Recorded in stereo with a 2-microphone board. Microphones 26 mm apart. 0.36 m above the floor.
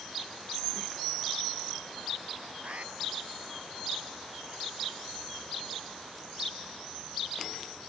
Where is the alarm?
55° right (ahead or behind).